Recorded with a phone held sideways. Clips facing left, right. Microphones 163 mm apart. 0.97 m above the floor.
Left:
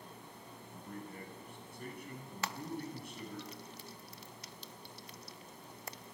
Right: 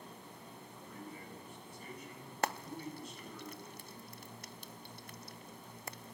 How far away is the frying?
About 0.6 m.